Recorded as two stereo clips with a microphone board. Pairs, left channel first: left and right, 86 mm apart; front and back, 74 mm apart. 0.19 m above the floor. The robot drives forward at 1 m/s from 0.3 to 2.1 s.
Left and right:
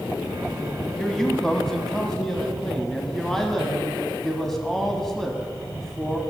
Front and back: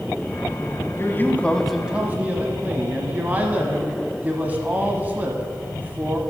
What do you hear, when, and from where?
1.0 s a man speaking: 5° left, 1.2 m; by 6.2 s 170° left, 1.0 m